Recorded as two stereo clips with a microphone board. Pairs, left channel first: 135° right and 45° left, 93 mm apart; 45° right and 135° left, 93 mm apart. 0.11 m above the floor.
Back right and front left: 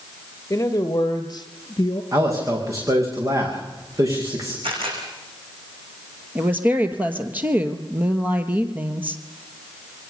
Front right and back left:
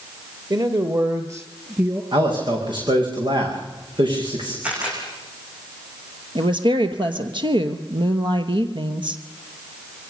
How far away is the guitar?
I don't hear a guitar.